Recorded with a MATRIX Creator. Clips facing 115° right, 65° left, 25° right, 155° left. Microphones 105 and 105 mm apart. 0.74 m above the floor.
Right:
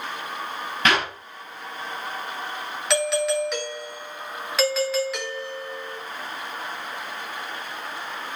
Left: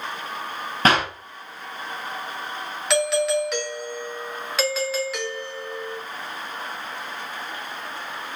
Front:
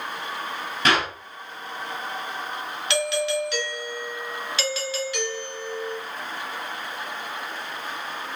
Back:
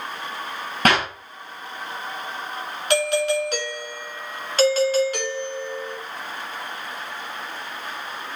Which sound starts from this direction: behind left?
A clap, at 0.8 s.